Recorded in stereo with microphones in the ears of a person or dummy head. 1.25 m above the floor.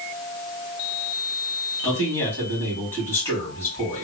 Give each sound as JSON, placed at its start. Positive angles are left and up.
{"t": 1.8, "sound": "a man speaking", "side_deg": 20, "distance_m": 1.5}